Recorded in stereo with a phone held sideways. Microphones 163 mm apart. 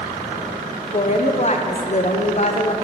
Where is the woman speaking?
45° left (ahead or behind), 0.7 m.